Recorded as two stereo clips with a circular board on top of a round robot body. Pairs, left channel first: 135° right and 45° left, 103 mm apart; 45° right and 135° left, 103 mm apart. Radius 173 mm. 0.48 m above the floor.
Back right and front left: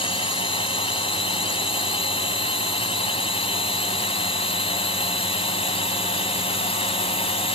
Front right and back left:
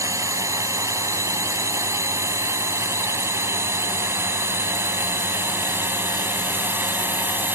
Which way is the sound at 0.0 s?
165° right.